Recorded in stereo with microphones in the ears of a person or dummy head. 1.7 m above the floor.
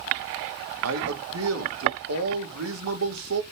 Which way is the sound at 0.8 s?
80° right.